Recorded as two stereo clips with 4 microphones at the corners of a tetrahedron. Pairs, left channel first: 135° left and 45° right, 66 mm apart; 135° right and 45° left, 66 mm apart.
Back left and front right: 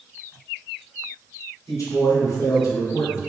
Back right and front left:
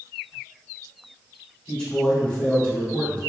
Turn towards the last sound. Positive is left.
turn(degrees=155)